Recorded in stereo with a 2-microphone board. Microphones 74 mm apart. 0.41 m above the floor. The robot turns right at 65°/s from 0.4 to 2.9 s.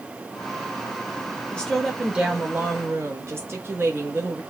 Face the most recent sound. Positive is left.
turn(degrees=-110)